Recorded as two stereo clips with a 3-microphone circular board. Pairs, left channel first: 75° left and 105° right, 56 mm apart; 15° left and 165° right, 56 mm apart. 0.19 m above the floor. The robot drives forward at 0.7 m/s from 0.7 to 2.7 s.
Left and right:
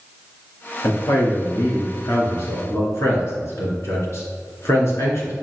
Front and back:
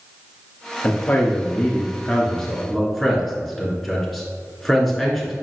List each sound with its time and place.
0.8 s a man speaking: 65° left, 3 m; by 5.3 s 100° left, 2.5 m